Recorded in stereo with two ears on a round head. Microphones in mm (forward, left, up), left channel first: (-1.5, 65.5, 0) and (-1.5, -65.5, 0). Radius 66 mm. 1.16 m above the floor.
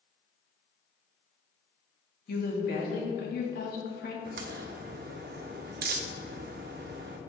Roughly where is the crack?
Right.